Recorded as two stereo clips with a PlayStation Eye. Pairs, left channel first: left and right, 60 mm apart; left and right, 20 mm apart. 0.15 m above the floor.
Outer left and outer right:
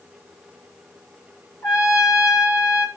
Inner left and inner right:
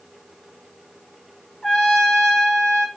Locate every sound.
1.6 s a trumpet: 65° left (ahead or behind), 4.5 m